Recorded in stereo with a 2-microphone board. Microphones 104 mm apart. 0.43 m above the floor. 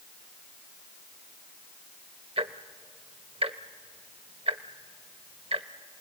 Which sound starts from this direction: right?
Ticking, at 2.4 s.